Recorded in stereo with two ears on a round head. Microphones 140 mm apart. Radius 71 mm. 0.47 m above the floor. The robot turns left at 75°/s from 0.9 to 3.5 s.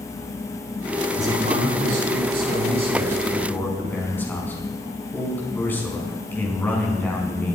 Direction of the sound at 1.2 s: 15° right.